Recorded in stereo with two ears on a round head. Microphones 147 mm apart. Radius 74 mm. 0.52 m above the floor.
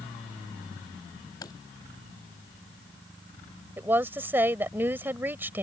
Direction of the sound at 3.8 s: 10° right (ahead or behind).